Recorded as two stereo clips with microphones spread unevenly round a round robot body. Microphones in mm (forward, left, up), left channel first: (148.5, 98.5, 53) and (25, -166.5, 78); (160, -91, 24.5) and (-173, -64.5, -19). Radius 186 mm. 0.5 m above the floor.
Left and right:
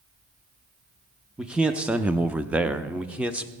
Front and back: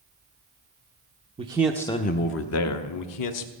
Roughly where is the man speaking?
Behind left.